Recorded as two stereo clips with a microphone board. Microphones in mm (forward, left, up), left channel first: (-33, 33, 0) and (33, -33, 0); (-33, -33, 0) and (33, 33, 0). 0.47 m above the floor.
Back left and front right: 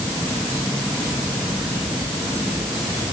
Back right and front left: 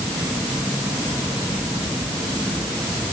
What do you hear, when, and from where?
Only background noise.